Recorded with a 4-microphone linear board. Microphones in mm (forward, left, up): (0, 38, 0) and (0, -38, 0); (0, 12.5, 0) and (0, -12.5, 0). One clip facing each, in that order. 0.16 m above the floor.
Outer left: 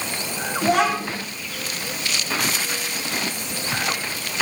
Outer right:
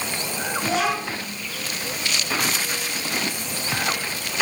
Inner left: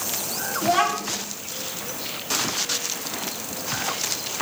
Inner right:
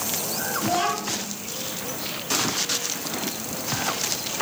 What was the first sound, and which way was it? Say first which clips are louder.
A child speaking: outer left 5 dB, inner left 4 dB; 60° left (ahead or behind).